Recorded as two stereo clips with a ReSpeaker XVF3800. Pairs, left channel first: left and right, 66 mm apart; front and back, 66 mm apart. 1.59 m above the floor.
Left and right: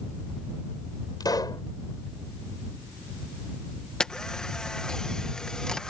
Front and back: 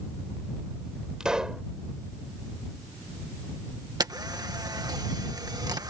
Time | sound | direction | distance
1.2 | a pop | 100° left | ?
4.0 | a camera shutter | 170° left | ?